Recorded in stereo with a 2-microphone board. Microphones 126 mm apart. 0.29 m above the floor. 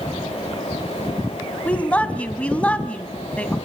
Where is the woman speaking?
10° left (ahead or behind), 1.8 m.